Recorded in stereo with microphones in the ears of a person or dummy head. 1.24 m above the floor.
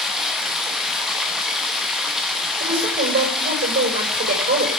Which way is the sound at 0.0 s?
Centre (ahead or behind).